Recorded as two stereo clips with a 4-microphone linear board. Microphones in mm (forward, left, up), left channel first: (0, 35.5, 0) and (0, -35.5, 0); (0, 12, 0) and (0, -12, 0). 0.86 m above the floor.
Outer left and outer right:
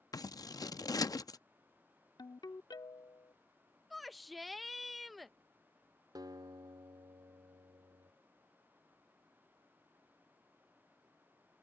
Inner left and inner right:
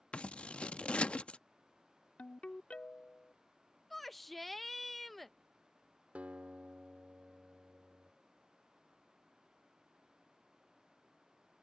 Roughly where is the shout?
Centre.